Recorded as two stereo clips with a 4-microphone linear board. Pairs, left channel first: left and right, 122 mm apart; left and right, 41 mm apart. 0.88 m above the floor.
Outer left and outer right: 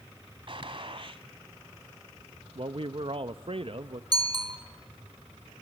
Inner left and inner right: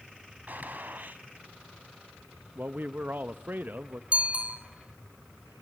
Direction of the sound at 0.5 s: 50° right (ahead or behind).